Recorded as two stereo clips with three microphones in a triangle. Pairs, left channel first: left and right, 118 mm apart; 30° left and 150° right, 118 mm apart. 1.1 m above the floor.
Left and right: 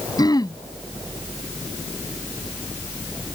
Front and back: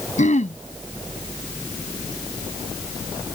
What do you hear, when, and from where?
0.2 s throat clearing: 35° left